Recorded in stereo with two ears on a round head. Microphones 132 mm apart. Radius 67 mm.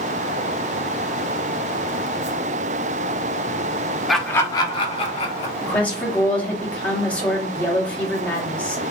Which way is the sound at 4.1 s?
Centre (ahead or behind).